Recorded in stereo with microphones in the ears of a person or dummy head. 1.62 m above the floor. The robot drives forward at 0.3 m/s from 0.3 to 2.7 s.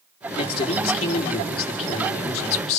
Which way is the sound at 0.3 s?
30° left (ahead or behind).